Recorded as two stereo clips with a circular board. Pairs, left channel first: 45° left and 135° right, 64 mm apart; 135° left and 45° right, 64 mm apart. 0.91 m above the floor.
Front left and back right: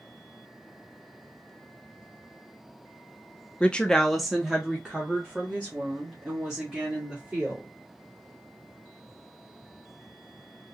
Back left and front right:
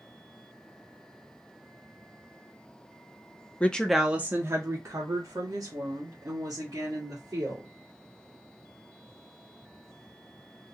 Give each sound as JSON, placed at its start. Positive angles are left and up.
{"t": 3.6, "sound": "a woman speaking", "azimuth_deg": 95, "distance_m": 0.5}